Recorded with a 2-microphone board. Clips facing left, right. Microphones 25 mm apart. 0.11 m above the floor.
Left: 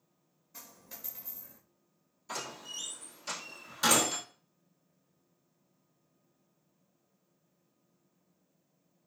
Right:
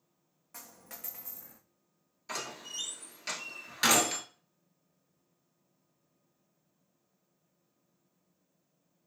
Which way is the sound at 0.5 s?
85° right.